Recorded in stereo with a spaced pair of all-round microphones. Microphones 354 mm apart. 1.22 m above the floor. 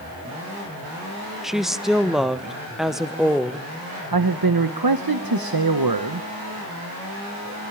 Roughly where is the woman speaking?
Centre.